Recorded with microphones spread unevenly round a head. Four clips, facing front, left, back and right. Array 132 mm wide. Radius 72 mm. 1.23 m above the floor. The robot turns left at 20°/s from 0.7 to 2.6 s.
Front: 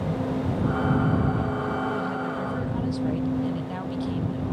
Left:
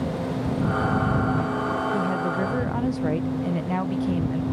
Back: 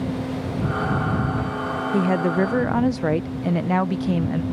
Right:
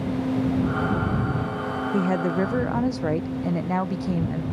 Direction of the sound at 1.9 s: 155° right.